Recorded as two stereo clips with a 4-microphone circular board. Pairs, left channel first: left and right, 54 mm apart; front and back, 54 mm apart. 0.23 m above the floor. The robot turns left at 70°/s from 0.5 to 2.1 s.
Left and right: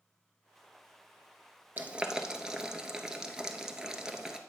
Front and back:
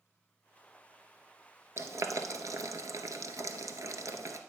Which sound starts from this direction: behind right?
Boiling, at 1.8 s.